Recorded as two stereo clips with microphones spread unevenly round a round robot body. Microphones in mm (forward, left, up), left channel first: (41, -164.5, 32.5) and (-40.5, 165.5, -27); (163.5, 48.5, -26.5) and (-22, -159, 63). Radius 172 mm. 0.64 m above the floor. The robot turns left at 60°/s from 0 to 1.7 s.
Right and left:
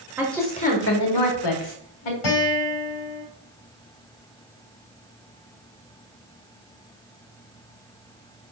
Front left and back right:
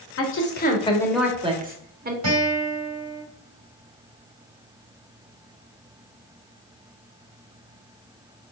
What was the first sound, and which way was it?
A woman speaking, 25° left.